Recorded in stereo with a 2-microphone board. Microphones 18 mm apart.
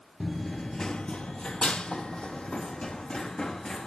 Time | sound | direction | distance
0.2 | running footsteps | 5° left (ahead or behind) | 0.6 m